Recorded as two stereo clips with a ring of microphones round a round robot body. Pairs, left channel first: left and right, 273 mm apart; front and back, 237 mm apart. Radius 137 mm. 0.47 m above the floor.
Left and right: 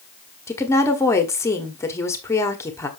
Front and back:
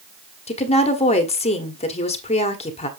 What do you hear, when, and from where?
0.5 s a woman speaking: 20° left, 1.3 m